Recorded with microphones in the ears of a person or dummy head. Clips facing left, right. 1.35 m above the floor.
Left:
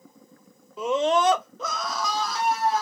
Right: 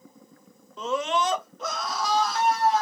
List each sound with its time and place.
0.8 s a scream: 5° left (ahead or behind), 0.7 m; by 2.8 s 65° left (ahead or behind), 1.8 m